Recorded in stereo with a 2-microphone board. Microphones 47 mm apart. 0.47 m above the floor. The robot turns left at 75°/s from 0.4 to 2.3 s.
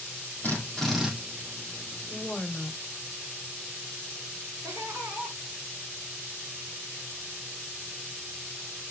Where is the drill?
45° left, 7 m; by 1.1 s 5° right, 7 m.